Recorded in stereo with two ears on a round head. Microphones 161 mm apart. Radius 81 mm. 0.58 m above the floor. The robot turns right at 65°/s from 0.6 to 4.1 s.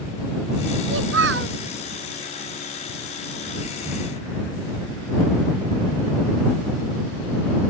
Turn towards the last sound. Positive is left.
turn(degrees=110)